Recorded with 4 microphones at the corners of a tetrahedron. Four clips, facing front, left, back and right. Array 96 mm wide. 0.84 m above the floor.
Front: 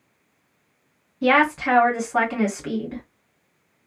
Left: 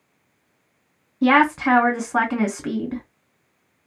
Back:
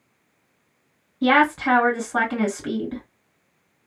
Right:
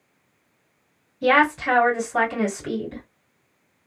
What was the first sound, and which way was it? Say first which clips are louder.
A woman speaking: left 2 dB, back 1 dB; 105° left.